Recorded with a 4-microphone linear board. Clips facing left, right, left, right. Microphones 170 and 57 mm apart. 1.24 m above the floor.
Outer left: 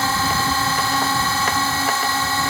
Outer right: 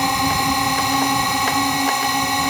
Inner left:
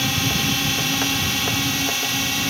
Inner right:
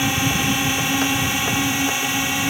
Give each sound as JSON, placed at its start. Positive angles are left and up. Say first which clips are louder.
{"t": 0.0, "sound": "a drone", "louder": "outer right 2 dB, inner right 2 dB", "side_deg": -15}